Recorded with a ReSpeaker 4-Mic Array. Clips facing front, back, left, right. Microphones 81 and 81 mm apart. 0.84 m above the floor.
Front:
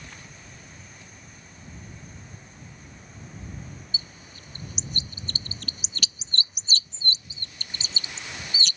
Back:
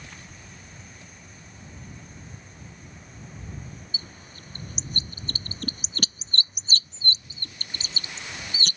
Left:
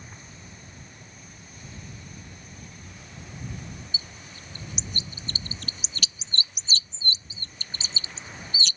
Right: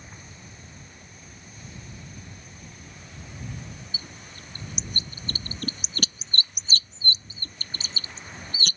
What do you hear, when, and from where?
3.9 s a bird: 130° right